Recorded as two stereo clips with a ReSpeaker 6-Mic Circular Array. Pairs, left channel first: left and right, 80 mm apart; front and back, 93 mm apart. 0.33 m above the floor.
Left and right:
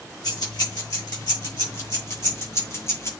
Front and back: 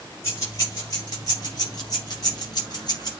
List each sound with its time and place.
0.2 s keys jangling: 55° left, 5 m; by 3.1 s 40° left, 6.5 m